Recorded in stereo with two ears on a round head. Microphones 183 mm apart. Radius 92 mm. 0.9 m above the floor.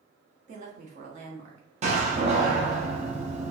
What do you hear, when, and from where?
0.5 s a woman speaking: 35° right (ahead or behind), 0.9 m
1.8 s a door slam: 35° right (ahead or behind), 0.8 m